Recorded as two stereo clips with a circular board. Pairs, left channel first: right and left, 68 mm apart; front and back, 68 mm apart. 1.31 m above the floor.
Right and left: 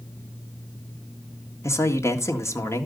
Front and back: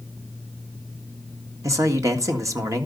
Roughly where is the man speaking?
Behind right.